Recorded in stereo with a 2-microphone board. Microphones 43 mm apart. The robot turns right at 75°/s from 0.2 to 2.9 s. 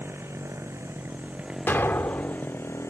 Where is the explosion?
50° left; by 2.4 s 110° left.